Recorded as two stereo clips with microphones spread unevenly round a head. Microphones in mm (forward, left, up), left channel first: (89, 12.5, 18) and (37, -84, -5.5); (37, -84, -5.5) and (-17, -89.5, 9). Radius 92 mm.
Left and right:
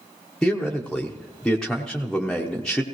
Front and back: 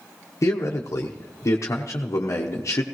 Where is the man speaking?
25° right, 1.0 m.